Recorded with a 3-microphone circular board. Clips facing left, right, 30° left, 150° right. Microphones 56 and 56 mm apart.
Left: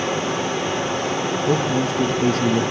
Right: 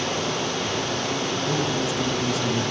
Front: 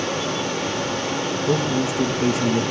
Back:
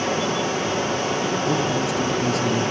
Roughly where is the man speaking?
Left.